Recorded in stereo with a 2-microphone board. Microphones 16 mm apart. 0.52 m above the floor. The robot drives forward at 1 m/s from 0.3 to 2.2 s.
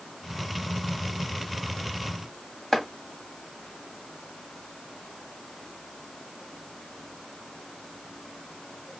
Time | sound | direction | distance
2.7 | chopping | 30° left (ahead or behind) | 1.8 m